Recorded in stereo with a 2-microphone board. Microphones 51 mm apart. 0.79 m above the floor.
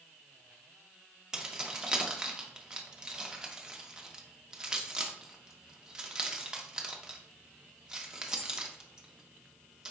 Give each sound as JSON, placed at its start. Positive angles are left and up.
{"t": 1.3, "sound": "keys jangling", "side_deg": -15, "distance_m": 0.6}